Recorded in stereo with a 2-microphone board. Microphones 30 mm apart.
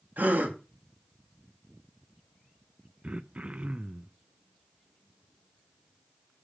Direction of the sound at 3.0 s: 45° right (ahead or behind).